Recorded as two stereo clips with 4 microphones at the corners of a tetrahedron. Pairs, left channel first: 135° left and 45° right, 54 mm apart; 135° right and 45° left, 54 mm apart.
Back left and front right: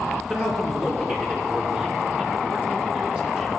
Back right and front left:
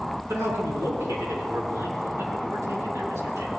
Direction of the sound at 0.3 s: 20° left.